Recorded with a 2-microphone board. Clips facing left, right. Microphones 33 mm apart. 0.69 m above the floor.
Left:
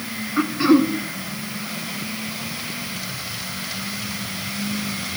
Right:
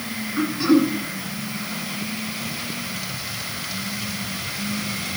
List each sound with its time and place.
0.4 s throat clearing: 25° left (ahead or behind), 1.5 m